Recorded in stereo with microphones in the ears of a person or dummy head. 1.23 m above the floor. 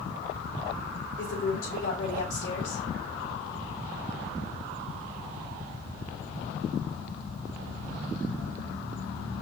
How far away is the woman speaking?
About 3.5 m.